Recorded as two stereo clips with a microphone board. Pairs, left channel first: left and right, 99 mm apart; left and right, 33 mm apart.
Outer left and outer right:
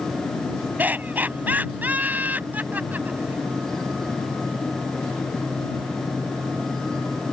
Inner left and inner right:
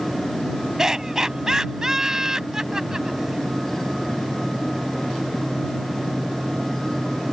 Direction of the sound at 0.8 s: 20° right (ahead or behind).